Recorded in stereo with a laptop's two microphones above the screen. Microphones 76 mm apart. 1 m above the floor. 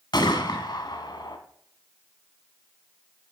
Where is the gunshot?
70° left (ahead or behind), 1.8 m.